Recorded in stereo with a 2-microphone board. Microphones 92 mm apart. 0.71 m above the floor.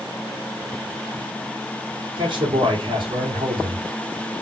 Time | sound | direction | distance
2.2 | a man speaking | 65° right (ahead or behind) | 1.9 m